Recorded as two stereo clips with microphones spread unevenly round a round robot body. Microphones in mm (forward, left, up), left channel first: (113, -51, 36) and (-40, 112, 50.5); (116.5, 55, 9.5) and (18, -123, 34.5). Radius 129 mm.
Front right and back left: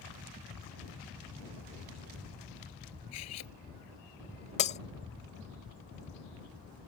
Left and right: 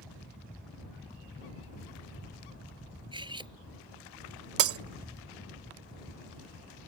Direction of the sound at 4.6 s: 110° right.